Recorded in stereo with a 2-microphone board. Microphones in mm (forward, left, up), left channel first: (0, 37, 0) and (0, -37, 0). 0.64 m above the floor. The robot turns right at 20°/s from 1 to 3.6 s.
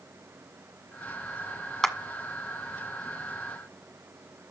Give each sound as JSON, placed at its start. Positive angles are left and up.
{"t": 1.8, "sound": "a clap", "side_deg": 10, "distance_m": 1.5}